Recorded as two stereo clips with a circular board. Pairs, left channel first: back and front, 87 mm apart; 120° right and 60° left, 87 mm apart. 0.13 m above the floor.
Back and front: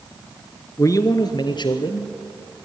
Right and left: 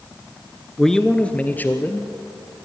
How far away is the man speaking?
About 1.4 m.